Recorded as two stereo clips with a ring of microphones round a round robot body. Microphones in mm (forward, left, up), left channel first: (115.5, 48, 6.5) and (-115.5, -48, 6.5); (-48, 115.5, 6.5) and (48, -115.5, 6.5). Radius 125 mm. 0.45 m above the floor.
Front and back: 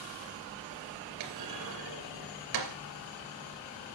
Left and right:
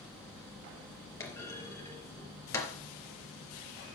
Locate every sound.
1.2 s a clunk: 170° right, 3 m